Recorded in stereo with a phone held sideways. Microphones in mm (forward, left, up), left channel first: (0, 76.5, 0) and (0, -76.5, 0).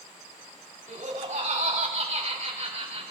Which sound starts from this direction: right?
Laughter, at 0.9 s.